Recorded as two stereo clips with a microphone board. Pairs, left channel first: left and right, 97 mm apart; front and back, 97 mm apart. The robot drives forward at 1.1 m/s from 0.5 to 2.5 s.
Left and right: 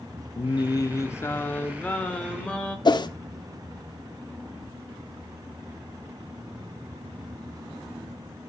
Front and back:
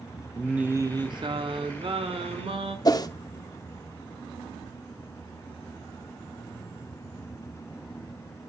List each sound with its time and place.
0.4 s singing: 100° left, 0.7 m; by 2.8 s 170° left, 2.5 m
2.9 s a whoosh: 50° left, 0.9 m